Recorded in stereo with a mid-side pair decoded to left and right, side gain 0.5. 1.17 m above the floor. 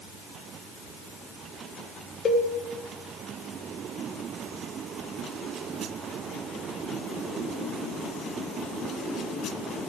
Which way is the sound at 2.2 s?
45° left.